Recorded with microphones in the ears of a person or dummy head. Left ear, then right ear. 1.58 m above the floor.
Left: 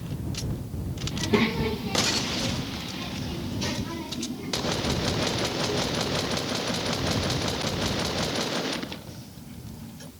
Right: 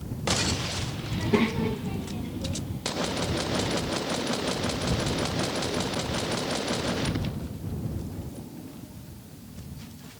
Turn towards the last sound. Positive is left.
turn(degrees=85)